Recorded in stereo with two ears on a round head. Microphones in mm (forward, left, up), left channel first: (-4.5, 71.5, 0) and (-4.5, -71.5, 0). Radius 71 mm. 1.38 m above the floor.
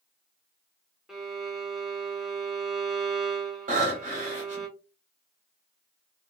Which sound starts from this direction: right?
Breathing, at 3.7 s.